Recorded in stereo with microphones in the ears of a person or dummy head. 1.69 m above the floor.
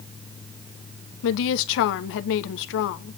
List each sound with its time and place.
1.2 s a woman speaking: 65° left (ahead or behind), 0.8 m